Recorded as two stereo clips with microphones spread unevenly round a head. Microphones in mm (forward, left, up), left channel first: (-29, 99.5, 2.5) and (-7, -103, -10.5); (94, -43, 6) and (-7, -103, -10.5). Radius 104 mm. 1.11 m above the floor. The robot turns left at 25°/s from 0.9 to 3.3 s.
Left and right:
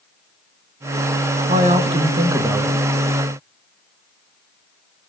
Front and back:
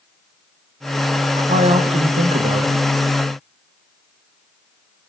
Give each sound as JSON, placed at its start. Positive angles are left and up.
{"t": 1.4, "sound": "a man speaking", "azimuth_deg": -130, "distance_m": 1.5}